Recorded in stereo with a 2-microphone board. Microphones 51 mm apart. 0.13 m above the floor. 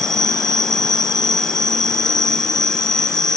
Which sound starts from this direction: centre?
An insect, at 0.0 s.